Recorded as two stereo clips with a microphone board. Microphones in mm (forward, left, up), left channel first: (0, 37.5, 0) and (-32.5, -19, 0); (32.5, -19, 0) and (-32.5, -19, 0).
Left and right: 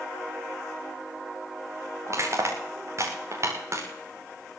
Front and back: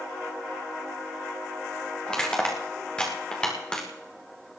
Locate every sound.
2.1 s crushing: 75° right, 4.5 m